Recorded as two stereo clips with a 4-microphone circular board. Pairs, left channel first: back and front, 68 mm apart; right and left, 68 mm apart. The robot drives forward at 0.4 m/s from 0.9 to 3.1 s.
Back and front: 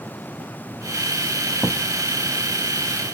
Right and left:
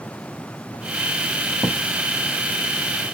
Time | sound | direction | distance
1.6 | a thud | 95° left | 1.6 m